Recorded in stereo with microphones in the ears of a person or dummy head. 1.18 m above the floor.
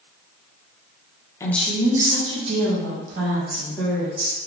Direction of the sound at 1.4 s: 10° left (ahead or behind).